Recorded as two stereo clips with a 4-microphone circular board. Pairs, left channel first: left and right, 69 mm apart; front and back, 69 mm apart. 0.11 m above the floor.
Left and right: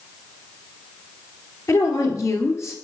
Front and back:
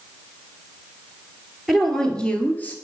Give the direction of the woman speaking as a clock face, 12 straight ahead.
9 o'clock.